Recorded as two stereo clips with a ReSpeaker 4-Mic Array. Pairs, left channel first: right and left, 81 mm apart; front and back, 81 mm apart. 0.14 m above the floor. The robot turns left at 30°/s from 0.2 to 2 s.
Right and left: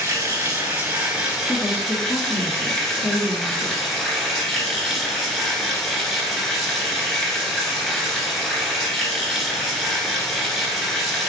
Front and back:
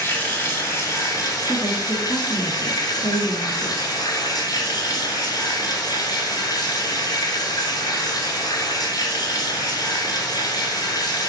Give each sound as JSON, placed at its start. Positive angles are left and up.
{"t": 0.0, "sound": "running water", "azimuth_deg": 55, "distance_m": 1.3}
{"t": 1.5, "sound": "a woman speaking", "azimuth_deg": -95, "distance_m": 1.3}